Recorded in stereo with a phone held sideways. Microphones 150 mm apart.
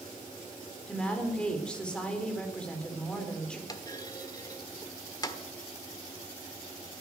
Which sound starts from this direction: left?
A clunk, at 3.7 s.